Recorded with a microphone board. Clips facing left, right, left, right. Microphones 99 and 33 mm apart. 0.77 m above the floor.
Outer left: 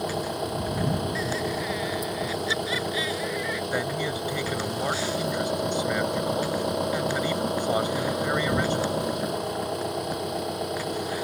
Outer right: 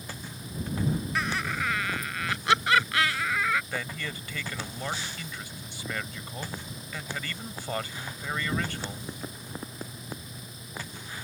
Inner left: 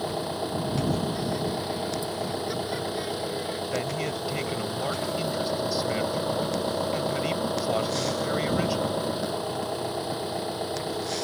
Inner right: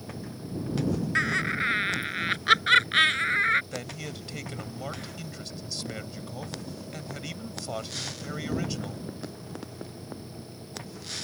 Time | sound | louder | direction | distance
0.0 | an engine running | outer left 14 dB, inner left 11 dB | 70° left (ahead or behind) | ?
1.1 | laughter | outer left 3 dB, inner right 3 dB | 70° right (ahead or behind) | ?
3.7 | a man speaking | outer left 8 dB, inner left 8 dB | 20° left (ahead or behind) | ?